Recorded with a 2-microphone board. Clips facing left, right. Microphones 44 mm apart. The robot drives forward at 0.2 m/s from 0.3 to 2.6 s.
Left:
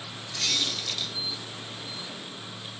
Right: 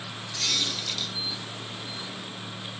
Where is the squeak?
10° left (ahead or behind), 0.6 m; by 1.1 s 5° left (ahead or behind), 0.7 m.